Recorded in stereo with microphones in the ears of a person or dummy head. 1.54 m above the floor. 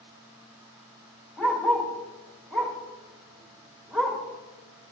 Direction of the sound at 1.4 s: 5° left (ahead or behind).